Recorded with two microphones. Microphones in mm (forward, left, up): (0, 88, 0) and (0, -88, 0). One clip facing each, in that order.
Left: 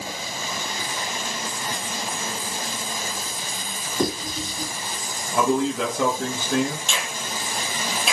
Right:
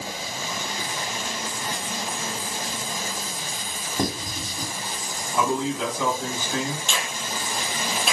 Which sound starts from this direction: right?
Writing, at 4.0 s.